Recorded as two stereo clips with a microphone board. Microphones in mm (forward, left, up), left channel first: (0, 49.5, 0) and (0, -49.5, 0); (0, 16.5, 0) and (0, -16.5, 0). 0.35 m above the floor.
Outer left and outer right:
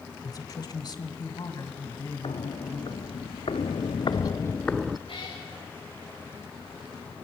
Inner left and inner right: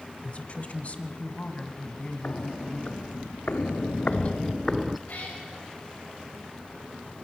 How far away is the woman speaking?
About 1.1 m.